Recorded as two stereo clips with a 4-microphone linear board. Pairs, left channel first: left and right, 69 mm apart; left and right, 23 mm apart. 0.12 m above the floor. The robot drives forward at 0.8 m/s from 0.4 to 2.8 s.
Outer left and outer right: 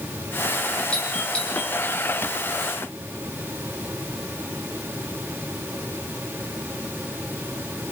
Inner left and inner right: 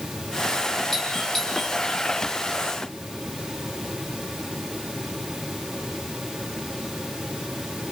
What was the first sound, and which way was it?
A doorbell, 15° left (ahead or behind).